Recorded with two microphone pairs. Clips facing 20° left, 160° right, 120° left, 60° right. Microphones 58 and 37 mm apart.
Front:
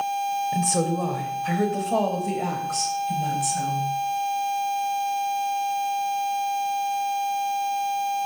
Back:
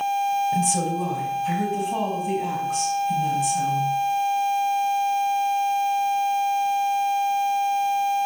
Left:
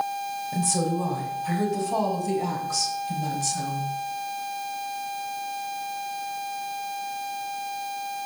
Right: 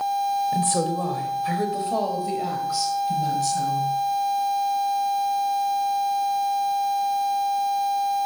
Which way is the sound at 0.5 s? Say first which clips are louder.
Back 1 dB, right 3 dB; 20° right.